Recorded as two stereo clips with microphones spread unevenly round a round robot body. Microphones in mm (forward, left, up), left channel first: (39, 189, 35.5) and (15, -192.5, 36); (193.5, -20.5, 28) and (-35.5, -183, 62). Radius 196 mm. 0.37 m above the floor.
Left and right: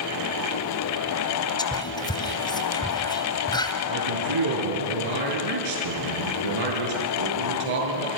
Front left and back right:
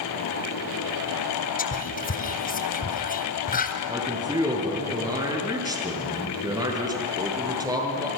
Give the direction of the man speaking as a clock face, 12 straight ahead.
2 o'clock.